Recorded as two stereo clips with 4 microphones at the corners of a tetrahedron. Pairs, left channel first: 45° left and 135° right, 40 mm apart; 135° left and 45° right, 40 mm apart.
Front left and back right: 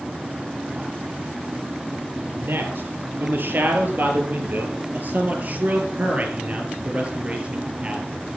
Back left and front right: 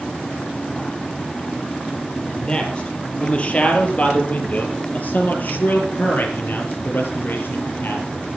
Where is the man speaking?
160° right, 5 m; by 8.1 s 160° left, 5 m.